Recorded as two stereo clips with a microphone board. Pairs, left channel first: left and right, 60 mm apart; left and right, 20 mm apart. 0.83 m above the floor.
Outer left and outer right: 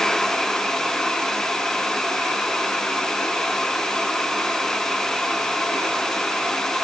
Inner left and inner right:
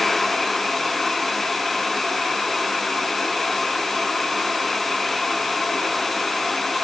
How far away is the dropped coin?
No dropped coin in this recording.